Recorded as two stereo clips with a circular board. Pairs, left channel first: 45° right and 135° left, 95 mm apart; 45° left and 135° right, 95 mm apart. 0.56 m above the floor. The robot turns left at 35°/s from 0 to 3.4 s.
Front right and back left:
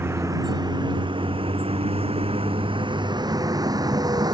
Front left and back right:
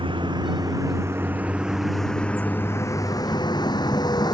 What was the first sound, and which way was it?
A vehicle, 160° right.